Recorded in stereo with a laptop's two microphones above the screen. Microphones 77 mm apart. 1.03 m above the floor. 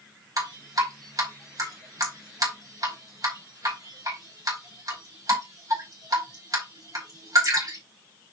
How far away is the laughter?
No laughter in this recording.